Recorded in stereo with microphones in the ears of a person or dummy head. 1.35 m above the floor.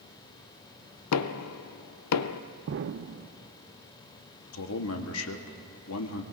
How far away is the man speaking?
About 1.2 m.